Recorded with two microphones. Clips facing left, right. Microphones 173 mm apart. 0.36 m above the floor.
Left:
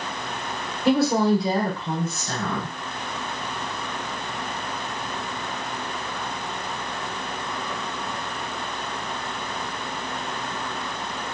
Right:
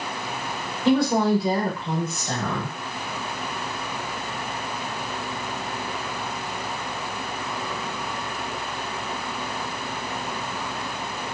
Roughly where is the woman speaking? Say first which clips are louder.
Even; centre.